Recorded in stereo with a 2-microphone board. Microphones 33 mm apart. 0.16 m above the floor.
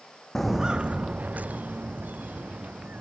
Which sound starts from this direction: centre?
Footsteps, at 0.3 s.